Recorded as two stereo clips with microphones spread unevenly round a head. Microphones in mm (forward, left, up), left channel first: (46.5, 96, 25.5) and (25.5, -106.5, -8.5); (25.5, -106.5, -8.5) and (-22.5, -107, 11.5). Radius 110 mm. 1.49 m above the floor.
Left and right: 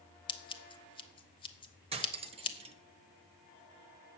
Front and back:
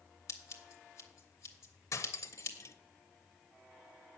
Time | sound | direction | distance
0.3 | scissors | 35° left | 0.8 m
1.9 | cutlery clinking | 30° right | 0.8 m